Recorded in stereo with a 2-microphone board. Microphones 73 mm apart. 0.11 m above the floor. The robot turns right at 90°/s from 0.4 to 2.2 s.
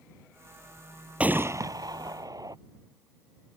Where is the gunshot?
160° right; by 2.6 s 70° right.